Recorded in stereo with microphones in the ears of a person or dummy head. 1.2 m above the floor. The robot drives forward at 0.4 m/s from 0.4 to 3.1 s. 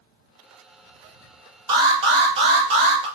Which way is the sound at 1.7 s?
25° right (ahead or behind).